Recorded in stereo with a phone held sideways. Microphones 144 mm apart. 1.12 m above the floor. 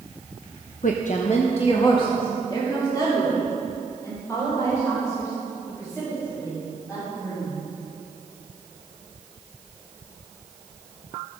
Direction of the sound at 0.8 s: 65° left (ahead or behind).